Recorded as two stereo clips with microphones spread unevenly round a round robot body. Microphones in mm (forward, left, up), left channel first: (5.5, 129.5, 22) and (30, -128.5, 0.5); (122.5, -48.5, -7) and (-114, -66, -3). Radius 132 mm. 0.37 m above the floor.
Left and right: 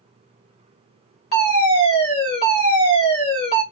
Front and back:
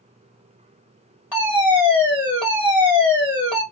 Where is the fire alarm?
85° left, 2 m.